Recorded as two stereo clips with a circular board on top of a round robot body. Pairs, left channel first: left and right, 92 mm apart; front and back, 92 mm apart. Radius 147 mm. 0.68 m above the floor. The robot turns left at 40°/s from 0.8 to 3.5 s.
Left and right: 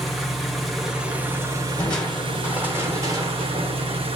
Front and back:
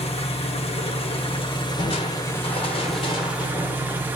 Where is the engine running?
Straight ahead, 1.0 m; by 4.2 s 110° right, 1.0 m.